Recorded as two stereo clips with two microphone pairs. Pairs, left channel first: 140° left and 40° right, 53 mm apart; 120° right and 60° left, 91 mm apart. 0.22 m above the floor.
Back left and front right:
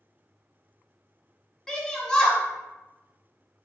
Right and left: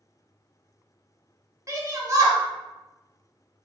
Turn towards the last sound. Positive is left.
turn(degrees=75)